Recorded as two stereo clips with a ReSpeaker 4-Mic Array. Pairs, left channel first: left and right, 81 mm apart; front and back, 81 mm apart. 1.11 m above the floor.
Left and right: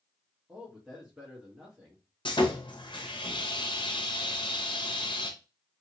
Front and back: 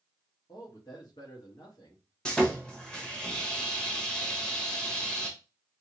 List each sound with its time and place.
0.5 s a man speaking: 10° right, 1.6 m
2.2 s sawing: 80° left, 0.9 m